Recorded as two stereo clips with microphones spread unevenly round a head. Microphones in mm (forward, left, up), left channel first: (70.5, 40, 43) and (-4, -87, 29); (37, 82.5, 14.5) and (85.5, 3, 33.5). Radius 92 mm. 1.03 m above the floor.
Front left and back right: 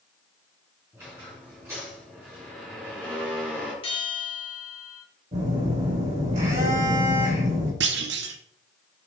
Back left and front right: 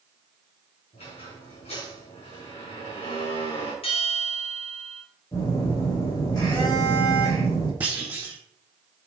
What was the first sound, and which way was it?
A squeak, 165° left.